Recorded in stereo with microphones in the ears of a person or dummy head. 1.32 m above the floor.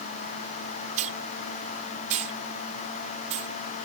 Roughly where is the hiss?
Right.